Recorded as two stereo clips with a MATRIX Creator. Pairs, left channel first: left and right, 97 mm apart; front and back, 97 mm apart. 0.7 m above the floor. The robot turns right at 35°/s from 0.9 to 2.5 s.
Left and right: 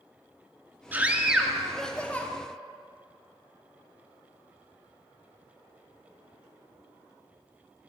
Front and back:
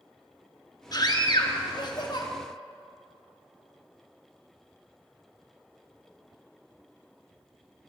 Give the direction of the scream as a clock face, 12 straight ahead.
1 o'clock.